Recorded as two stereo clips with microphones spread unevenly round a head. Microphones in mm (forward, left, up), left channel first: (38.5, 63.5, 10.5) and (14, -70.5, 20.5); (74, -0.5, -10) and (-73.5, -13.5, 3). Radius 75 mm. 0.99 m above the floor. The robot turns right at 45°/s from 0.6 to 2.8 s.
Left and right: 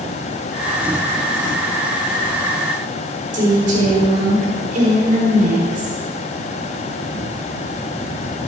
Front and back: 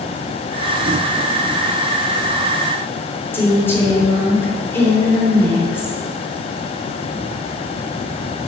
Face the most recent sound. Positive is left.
turn(degrees=-70)